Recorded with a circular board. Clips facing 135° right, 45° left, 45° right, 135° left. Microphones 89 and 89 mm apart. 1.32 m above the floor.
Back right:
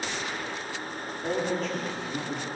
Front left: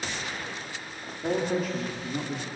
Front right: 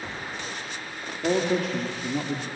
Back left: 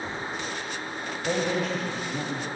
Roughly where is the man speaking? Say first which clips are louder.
Front left 2 dB, front right 3 dB; ahead right.